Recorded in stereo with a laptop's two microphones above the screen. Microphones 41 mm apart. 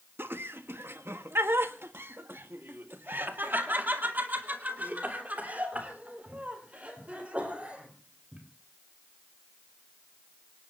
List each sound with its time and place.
0.2 s laughter: 60° right (ahead or behind), 1.5 m; by 8.4 s 30° right (ahead or behind), 4.5 m